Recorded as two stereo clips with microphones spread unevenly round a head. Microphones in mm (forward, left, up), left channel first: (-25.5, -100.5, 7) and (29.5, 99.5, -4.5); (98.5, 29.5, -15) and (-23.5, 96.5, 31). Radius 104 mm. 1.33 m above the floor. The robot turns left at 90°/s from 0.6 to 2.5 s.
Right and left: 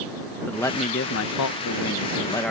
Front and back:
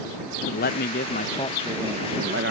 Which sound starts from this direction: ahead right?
A man speaking, at 0.5 s.